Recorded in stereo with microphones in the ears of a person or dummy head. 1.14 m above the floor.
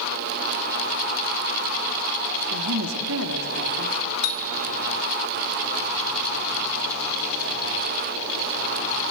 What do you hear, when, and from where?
2.5 s a woman speaking: 75° right (ahead or behind), 2 m
4.2 s a bicycle bell: 85° left, 2 m